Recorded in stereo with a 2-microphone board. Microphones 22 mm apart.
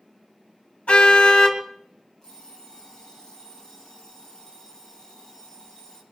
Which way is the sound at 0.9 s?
75° left (ahead or behind).